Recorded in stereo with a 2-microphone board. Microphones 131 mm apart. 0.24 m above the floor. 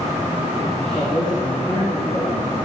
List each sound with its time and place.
0.8 s a man speaking: 5° left (ahead or behind), 9.5 m